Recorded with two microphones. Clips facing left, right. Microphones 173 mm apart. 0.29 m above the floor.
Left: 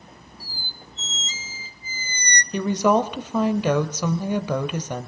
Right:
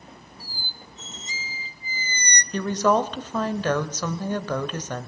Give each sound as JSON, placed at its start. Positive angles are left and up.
{"t": 0.4, "sound": "a squeak", "side_deg": -15, "distance_m": 0.5}
{"t": 2.5, "sound": "a woman speaking", "side_deg": 10, "distance_m": 1.0}